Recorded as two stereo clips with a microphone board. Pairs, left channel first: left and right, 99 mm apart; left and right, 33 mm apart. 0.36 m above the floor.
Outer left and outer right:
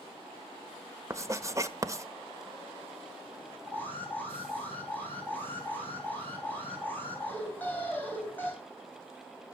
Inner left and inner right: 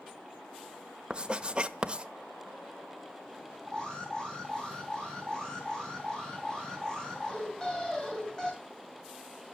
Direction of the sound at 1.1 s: 30° right (ahead or behind).